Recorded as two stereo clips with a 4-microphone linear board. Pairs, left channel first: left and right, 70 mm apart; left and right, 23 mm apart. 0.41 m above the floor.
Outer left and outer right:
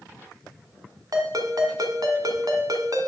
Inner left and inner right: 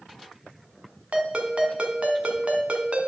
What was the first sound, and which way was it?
A ringtone, 55° right (ahead or behind).